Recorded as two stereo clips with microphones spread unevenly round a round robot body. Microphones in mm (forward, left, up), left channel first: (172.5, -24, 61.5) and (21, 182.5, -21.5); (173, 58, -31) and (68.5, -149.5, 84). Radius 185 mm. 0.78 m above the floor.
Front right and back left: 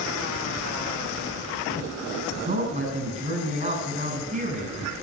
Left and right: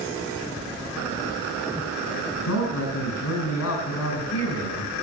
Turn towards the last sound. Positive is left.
turn(degrees=70)